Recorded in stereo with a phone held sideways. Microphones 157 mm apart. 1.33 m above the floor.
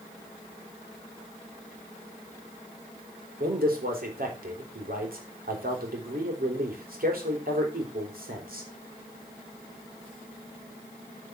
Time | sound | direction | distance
3.4 | a man speaking | 65° right (ahead or behind) | 4 m